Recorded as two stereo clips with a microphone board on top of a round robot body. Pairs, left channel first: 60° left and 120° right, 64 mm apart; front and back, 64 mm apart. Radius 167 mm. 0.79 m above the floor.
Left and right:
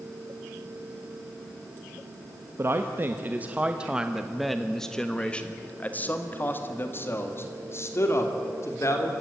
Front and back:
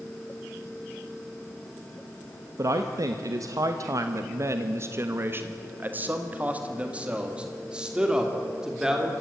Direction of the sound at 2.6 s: 160° right.